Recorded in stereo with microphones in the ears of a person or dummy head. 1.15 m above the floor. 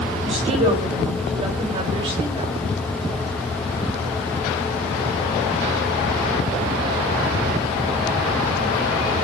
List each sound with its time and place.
0.2 s a woman speaking: 35° right (ahead or behind), 7 m